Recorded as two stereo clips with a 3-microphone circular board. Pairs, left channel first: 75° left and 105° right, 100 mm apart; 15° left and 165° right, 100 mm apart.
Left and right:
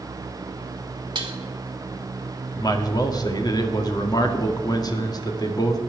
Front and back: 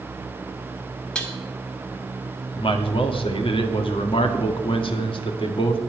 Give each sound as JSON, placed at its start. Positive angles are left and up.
{"t": 1.1, "sound": "dishes clattering", "azimuth_deg": -65, "distance_m": 2.0}
{"t": 2.6, "sound": "a man speaking", "azimuth_deg": 30, "distance_m": 1.8}